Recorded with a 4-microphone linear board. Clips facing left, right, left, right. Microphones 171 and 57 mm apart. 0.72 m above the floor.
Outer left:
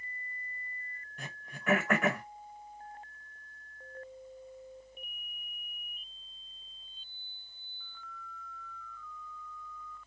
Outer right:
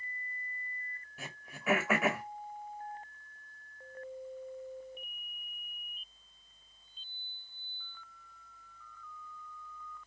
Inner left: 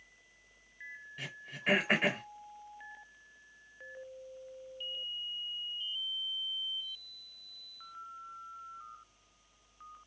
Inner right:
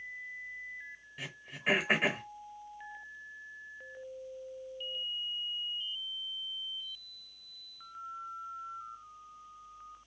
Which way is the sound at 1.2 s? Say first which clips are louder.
Even, inner right 1 dB; 5° right (ahead or behind).